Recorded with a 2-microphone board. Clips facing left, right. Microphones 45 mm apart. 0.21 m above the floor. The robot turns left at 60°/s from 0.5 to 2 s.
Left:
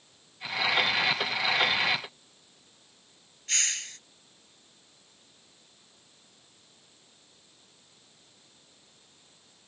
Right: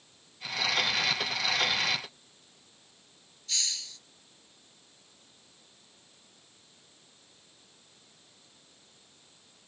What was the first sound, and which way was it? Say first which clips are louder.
A hiss: left 4 dB; 50° left (ahead or behind).